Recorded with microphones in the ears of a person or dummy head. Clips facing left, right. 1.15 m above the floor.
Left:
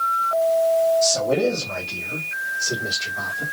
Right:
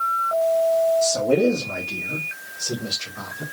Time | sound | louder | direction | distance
1.0 | a man speaking | right 1 dB | 10° right (ahead or behind) | 0.9 m